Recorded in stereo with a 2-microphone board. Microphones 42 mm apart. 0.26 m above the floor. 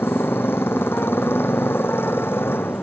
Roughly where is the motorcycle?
Left.